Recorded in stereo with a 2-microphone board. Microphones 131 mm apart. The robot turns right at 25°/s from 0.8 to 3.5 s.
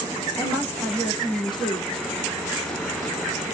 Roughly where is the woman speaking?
Centre.